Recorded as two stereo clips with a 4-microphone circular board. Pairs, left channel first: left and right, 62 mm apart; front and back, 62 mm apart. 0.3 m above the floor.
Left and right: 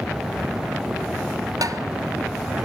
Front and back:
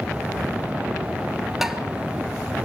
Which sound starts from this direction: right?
Tapping, at 1.6 s.